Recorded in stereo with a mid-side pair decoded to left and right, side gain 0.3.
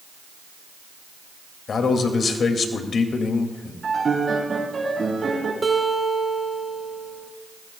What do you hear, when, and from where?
1.7 s a man speaking: 70° left, 2.5 m
3.8 s a piano: 50° right, 8 m
5.6 s a guitar: 25° right, 4 m